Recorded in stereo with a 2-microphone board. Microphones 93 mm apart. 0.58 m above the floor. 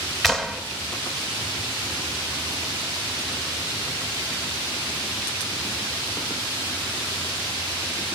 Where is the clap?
Centre (ahead or behind), 2 m.